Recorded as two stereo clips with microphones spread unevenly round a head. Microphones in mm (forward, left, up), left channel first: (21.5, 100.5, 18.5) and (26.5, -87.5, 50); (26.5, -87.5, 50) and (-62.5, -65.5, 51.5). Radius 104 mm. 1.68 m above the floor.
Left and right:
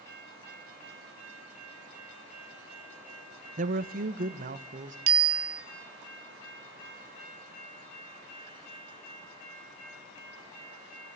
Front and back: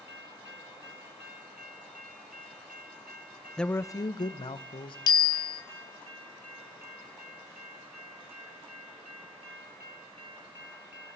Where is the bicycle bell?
50° right, 3.5 m.